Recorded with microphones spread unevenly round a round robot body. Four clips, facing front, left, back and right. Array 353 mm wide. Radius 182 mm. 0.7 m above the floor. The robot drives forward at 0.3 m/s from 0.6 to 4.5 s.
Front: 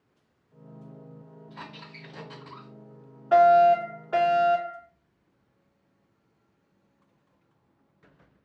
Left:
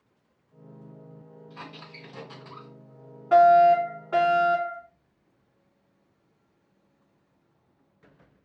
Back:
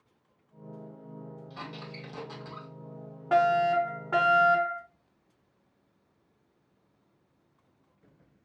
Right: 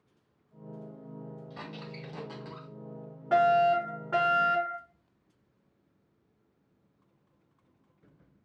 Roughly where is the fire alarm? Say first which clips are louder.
Left 7 dB, front 7 dB; behind right.